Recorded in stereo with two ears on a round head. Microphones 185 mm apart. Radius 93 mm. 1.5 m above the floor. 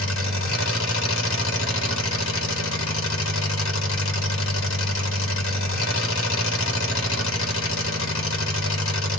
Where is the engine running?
65° left (ahead or behind), 1.1 m.